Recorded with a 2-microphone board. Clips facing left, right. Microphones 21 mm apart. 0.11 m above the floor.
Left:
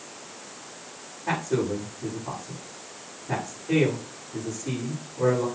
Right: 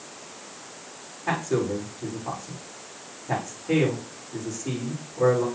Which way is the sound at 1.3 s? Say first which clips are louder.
Right 1 dB; 20° right (ahead or behind).